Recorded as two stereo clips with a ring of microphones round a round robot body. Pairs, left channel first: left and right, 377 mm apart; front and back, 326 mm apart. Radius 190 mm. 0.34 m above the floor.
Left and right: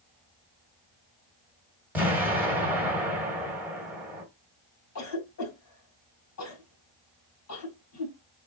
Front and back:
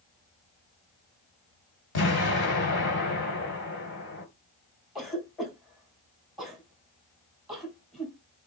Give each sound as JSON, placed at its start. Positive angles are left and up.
{"t": 1.9, "sound": "an explosion", "azimuth_deg": -5, "distance_m": 1.6}
{"t": 5.0, "sound": "a cough", "azimuth_deg": 90, "distance_m": 1.9}